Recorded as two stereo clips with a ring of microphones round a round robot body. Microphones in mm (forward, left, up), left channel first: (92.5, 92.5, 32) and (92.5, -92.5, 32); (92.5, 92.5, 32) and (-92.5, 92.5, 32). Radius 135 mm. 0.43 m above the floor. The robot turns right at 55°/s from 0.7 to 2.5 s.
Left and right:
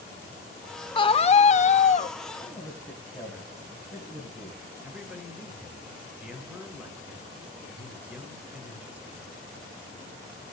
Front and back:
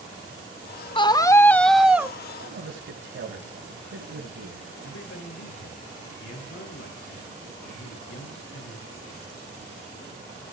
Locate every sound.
0.9 s a scream: 45° left, 1.3 m; by 2.2 s 110° left, 1.3 m
2.4 s a man speaking: 170° left, 3.5 m; by 4.9 s 175° left, 3.5 m
4.8 s a man speaking: 10° right, 7.5 m